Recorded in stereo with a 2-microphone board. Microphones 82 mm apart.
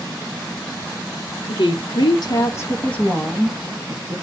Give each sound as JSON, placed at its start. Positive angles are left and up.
{"t": 1.5, "sound": "a woman speaking", "side_deg": 80, "distance_m": 0.9}